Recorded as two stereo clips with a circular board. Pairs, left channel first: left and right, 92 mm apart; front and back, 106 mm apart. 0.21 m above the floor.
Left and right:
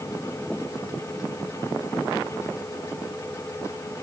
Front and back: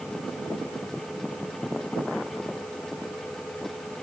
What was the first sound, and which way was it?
Only background noise.